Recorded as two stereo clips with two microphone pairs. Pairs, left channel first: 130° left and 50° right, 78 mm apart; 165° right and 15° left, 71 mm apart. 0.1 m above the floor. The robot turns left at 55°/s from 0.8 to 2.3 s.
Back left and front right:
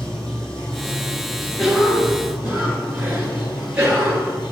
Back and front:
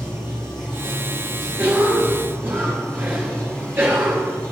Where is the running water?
150° right, 2 m; by 4.5 s 125° left, 2 m.